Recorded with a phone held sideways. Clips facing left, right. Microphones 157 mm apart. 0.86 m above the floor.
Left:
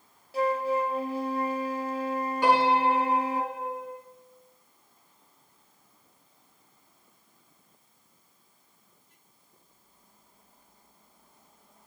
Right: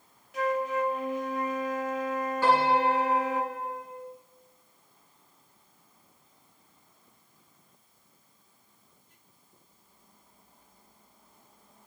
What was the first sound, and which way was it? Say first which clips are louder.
A flute: left 2 dB; 30° left (ahead or behind).